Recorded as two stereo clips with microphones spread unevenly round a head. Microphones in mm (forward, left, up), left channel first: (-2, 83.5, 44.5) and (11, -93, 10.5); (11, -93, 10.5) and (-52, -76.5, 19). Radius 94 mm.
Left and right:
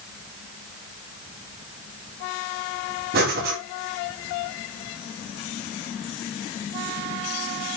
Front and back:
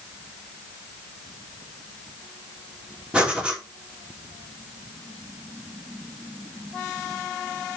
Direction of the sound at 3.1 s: 120° right.